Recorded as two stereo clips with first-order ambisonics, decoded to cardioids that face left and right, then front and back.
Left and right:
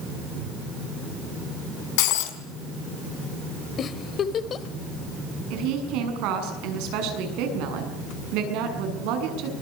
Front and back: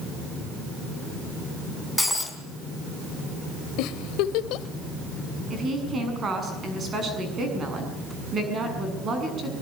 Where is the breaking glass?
90° left, 3.5 m.